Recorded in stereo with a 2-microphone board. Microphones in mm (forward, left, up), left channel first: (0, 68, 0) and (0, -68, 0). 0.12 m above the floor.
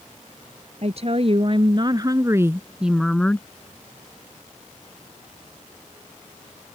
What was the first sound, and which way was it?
A woman speaking, 50° right (ahead or behind).